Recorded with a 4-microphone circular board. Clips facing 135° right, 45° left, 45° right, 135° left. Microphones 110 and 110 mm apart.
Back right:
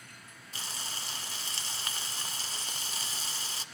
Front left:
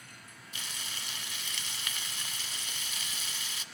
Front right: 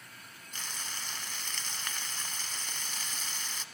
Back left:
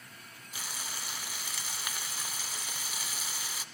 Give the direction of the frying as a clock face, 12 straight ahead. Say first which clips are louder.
Back right 3 dB, back left 1 dB; 5 o'clock.